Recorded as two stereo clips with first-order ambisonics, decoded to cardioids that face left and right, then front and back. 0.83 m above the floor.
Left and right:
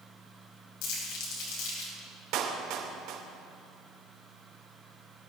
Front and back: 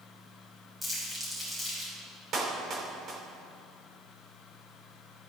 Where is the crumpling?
100° left, 6.5 m.